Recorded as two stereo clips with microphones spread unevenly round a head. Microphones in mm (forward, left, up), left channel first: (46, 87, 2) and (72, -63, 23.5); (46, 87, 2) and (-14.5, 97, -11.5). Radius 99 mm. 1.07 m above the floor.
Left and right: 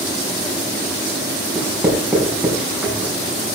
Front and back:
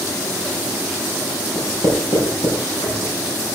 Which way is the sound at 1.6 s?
5° left.